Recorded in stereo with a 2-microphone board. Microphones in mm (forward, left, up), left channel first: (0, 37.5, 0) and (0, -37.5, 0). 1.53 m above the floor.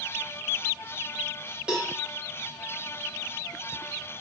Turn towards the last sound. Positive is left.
turn(degrees=-15)  # may be behind; listen again after turning